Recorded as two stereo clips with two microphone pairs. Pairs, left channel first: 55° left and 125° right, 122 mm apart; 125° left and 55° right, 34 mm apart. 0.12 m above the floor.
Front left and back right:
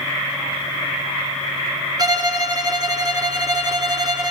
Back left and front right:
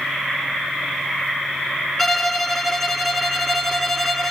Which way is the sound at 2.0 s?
150° right.